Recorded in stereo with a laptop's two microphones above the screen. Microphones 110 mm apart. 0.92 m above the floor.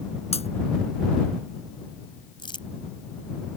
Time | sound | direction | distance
0.3 | breaking glass | 70° left (ahead or behind) | ?
2.4 | crumpling | 45° left (ahead or behind) | ?